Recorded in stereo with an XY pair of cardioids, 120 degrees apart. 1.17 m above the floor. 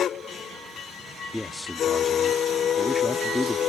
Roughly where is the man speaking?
Ahead.